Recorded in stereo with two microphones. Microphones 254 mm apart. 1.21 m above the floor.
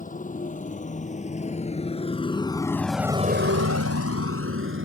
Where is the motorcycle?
30° left (ahead or behind); by 4.8 s 55° right (ahead or behind).